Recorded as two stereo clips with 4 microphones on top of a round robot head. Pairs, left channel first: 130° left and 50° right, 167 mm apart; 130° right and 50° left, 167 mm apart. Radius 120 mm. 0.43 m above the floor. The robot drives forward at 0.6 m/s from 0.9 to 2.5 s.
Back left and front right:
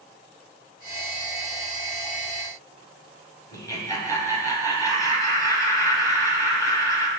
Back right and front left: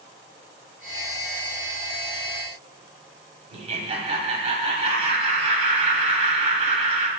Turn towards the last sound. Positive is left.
turn(degrees=75)